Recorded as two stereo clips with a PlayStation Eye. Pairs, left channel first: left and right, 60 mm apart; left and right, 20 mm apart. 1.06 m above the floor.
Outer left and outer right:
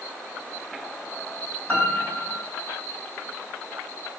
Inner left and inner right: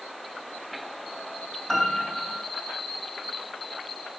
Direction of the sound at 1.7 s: 25° left (ahead or behind).